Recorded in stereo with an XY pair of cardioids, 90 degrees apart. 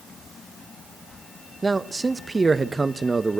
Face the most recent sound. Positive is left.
turn(degrees=-20)